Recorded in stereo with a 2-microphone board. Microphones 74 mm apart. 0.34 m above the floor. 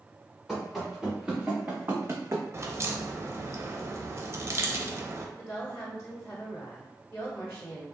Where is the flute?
I don't hear a flute.